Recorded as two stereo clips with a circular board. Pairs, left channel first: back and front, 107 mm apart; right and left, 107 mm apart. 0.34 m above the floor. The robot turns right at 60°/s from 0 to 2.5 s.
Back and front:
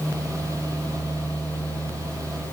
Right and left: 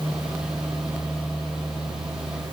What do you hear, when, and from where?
Only background noise.